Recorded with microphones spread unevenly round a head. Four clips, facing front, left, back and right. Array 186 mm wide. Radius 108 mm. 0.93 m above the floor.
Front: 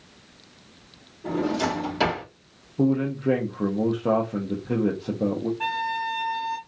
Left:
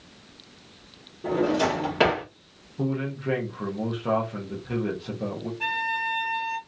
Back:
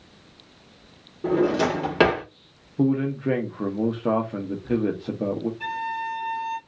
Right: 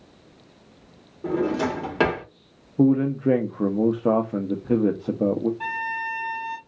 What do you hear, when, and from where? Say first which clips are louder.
1.2 s a drawer: even, back 4 dB; 160° left, 1.3 m
2.8 s a man speaking: right 10 dB, even; 95° right, 0.6 m
5.6 s a violin: even, front 2 dB; 40° right, 1.0 m